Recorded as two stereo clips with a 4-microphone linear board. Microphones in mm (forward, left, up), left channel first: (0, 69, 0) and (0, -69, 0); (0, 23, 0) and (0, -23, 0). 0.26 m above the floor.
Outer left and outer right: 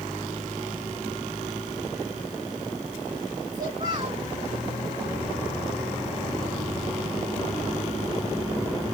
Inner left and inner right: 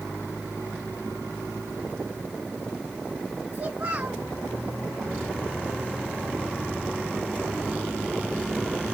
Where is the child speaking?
35° right (ahead or behind), 1.6 m.